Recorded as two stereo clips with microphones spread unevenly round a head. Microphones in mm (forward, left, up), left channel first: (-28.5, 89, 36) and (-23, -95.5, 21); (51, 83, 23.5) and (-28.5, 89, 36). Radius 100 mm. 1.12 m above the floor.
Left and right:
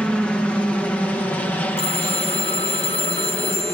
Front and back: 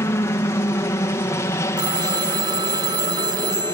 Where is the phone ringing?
150° left.